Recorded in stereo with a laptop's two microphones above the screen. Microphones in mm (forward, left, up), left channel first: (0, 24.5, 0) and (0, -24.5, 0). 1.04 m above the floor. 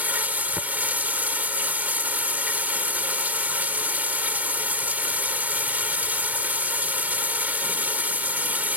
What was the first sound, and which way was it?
Running water, 35° right (ahead or behind).